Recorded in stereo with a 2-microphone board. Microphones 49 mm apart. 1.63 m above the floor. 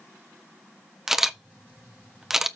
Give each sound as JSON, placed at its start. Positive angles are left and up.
{"t": 1.1, "sound": "a camera shutter", "side_deg": -10, "distance_m": 0.8}